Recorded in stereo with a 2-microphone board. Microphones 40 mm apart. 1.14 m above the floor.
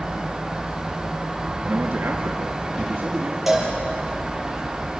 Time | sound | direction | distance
1.6 | a man speaking | 80° right | 2.0 m
3.5 | a cowbell | 5° right (ahead or behind) | 6.5 m